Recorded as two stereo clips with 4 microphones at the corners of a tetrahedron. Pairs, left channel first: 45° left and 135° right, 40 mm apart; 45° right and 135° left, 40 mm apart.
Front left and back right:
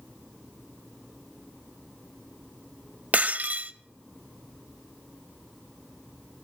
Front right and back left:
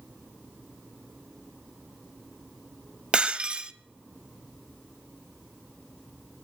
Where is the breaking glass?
170° right, 0.6 m.